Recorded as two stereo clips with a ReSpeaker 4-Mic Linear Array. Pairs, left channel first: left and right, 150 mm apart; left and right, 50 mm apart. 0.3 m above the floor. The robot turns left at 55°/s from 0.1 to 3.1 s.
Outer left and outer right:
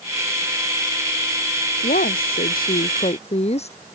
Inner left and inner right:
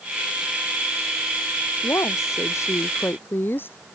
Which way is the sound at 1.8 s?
115° left.